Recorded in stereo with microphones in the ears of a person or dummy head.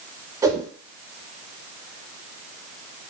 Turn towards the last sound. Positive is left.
turn(degrees=-20)  # may be behind; listen again after turning